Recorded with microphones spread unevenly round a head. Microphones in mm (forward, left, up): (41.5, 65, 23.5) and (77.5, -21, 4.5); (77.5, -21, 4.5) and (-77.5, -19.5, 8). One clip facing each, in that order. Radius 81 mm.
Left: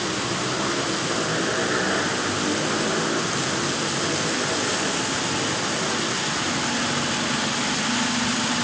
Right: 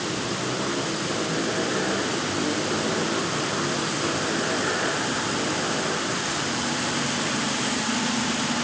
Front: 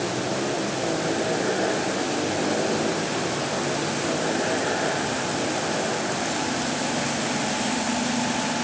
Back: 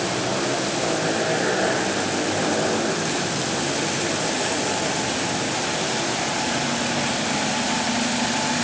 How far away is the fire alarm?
No fire alarm in this recording.